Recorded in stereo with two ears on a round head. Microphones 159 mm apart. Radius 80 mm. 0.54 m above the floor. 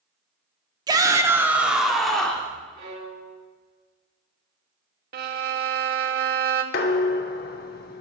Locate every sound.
0.9 s a shout: 25° right (ahead or behind), 0.9 m; by 2.5 s 5° left (ahead or behind), 1.2 m
2.7 s a violin: 80° right, 4.5 m
5.1 s a violin: 55° right (ahead or behind), 0.7 m
6.7 s dishes clattering: 55° left (ahead or behind), 0.8 m